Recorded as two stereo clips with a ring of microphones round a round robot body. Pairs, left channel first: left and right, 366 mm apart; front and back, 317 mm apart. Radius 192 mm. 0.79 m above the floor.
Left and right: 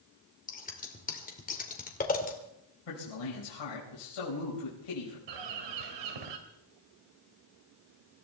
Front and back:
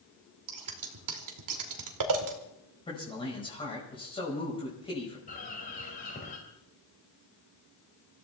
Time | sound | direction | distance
0.5 | scissors | 160° left | 2 m
2.9 | a man speaking | 75° left | 5 m
5.3 | a bird | 70° right | 1.9 m